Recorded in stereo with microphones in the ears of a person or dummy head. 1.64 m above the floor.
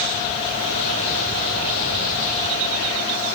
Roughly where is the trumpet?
No trumpet in this recording.